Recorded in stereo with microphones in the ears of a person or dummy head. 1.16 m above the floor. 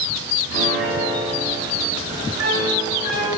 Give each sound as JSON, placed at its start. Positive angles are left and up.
{"t": 0.5, "sound": "a piano", "side_deg": -70, "distance_m": 3.5}